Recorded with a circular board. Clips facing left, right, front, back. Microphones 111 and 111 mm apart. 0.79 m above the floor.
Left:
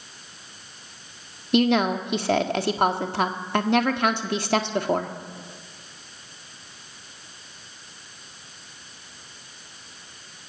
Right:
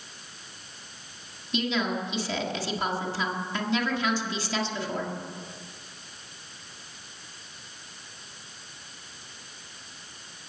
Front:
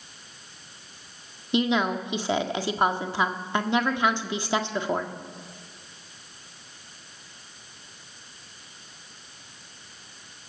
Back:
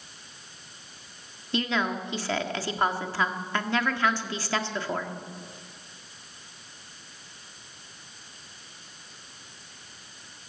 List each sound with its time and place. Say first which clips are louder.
1.5 s a woman speaking: left 8 dB, front 4 dB; 70° left, 1.5 m